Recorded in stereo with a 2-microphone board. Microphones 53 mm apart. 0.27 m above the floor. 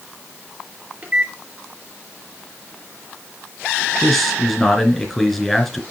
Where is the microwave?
30° right (ahead or behind), 4 m.